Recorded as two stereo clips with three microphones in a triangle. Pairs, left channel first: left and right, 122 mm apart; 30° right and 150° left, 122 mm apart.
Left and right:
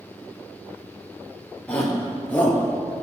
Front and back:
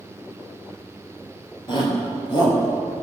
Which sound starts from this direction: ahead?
A shout, at 1.7 s.